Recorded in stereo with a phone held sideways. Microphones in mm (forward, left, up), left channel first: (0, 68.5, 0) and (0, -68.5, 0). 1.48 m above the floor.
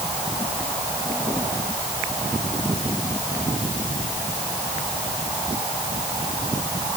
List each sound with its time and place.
Only background noise.